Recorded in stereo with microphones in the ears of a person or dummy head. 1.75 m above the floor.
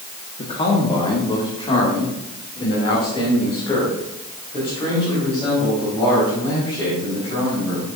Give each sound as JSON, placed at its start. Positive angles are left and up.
{"t": 0.4, "sound": "a man speaking", "side_deg": 30, "distance_m": 1.3}